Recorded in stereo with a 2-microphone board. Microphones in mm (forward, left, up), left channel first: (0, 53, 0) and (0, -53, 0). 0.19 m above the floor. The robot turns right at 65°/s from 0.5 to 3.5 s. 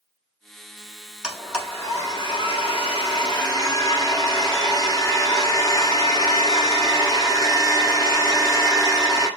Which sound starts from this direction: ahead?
A blender, at 1.2 s.